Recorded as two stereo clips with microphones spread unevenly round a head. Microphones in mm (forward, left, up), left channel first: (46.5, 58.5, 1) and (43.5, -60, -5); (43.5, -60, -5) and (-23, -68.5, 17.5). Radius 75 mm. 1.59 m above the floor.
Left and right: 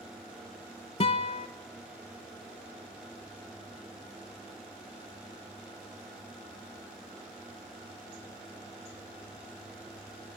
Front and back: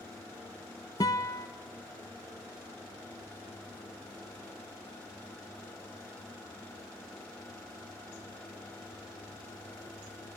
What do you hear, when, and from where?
1.0 s a guitar: 70° left, 1.0 m